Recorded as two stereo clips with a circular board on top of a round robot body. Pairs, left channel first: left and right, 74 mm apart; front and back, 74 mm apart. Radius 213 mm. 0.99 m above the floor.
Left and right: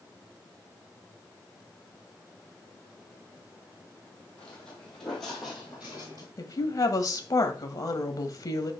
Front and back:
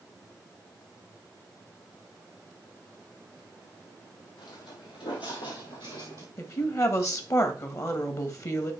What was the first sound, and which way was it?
Footsteps, 15° left.